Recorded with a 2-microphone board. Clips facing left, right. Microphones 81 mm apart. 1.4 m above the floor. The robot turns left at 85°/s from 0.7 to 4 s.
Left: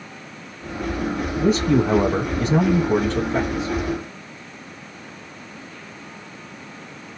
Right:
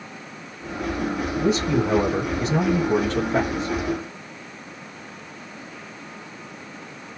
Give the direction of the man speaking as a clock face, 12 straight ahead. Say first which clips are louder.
Left 4 dB; 7 o'clock.